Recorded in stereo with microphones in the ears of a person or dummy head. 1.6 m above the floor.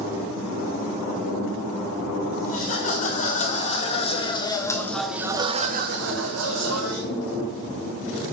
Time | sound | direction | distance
2.5 | laughter | 40° left (ahead or behind) | 1.7 m